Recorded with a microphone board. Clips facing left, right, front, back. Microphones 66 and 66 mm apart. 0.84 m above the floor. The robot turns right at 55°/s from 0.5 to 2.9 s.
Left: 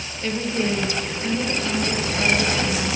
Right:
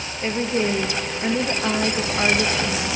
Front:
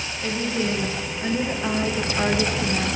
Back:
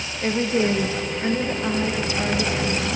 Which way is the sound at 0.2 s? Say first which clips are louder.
Right 2 dB, back 5 dB; 145° right.